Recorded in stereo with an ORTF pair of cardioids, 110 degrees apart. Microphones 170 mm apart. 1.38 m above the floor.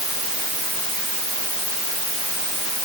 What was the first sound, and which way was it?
Only background noise.